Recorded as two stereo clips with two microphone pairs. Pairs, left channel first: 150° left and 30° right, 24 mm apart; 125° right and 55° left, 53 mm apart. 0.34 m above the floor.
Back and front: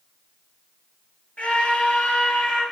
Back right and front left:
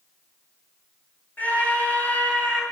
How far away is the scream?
About 6.5 m.